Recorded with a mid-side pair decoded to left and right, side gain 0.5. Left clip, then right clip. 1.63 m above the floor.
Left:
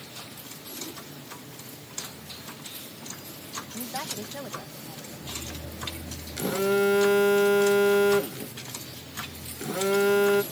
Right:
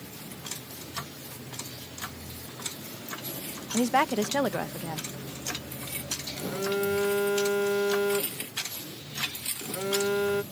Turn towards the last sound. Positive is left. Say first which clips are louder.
# left 6 dB
turn(degrees=35)